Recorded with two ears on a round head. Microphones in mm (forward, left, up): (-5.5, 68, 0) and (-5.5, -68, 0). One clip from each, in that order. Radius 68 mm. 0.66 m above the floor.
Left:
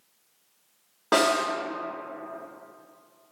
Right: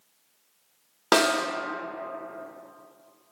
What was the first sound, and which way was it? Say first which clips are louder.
A snare drum: even; 85° right.